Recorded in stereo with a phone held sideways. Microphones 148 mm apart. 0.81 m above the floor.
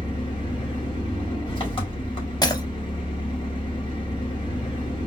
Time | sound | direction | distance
0.0 | an engine running | 35° left (ahead or behind) | 2 m
2.4 | breaking glass | 30° left (ahead or behind) | 0.7 m